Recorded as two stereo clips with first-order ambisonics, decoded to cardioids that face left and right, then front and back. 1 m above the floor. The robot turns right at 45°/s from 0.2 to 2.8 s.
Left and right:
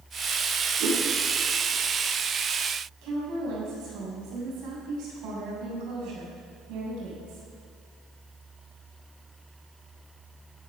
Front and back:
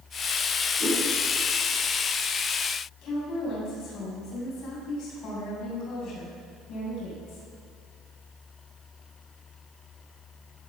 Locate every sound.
0.8 s a whoosh: 110° right, 6.5 m; by 1.0 s 100° right, 6.5 m
3.0 s a woman speaking: 50° right, 7 m